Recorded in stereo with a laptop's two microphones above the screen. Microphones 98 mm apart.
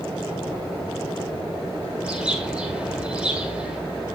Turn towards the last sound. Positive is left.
turn(degrees=-10)  # may be behind; listen again after turning